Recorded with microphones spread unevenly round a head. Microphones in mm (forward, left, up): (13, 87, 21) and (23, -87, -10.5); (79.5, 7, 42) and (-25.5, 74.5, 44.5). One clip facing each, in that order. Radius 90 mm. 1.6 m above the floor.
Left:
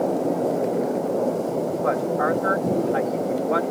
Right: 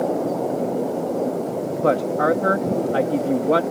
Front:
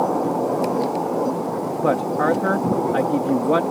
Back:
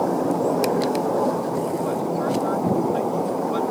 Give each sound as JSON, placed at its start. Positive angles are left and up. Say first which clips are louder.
{"t": 1.8, "sound": "a woman speaking", "louder": "right 6 dB, front 4 dB", "azimuth_deg": -45}